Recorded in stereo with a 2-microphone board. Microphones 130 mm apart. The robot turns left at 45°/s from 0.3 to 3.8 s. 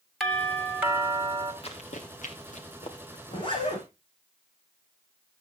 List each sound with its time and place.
0.2 s a doorbell: straight ahead, 1.6 m; by 1.5 s 55° right, 1.6 m
1.6 s running footsteps: 50° left (ahead or behind), 2.5 m; by 3.2 s 35° left (ahead or behind), 2.5 m
3.3 s a zipper: 45° left (ahead or behind), 8 m; by 3.9 s 25° left (ahead or behind), 8 m